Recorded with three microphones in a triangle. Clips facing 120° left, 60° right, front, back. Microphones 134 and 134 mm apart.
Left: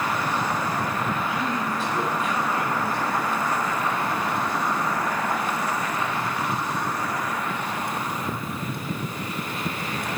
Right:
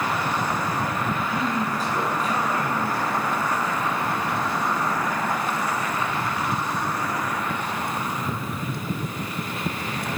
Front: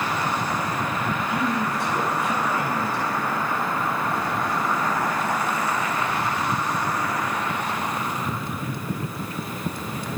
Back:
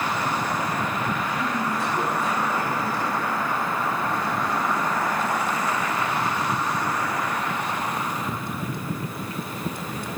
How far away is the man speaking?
About 4 m.